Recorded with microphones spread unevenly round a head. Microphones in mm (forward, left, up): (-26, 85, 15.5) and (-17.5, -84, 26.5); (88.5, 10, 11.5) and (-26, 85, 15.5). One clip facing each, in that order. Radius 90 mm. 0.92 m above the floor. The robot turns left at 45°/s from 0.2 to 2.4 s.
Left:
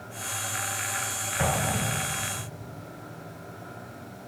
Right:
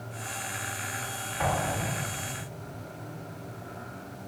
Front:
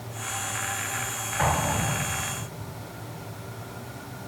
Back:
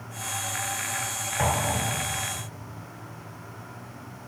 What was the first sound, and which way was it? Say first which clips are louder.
An explosion: left 1 dB, front 1 dB; 95° left.